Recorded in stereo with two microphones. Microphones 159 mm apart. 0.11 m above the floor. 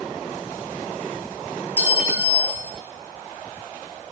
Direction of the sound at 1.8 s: 10° right (ahead or behind).